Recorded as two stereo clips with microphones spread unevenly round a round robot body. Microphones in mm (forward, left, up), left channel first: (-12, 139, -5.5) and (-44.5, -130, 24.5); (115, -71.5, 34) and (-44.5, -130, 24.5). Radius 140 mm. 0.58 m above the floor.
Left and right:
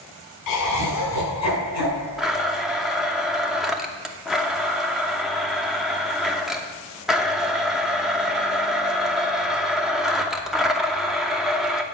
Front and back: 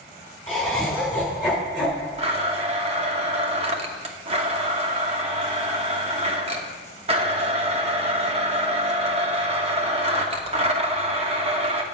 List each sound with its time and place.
0.5 s laughter: 105° left, 4.5 m; by 2.1 s 110° left, 6 m
2.2 s a blender: 170° left, 0.8 m